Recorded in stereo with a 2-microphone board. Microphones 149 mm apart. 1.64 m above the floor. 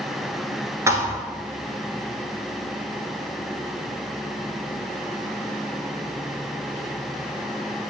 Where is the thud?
20° right (ahead or behind), 1.9 m.